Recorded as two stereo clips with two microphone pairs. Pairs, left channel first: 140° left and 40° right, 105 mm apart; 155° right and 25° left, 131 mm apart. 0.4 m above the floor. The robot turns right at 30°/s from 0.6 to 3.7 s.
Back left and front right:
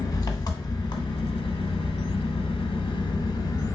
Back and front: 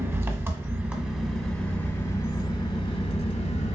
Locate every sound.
0.0 s an engine running: 95° left, 0.8 m; by 3.8 s 175° right, 0.8 m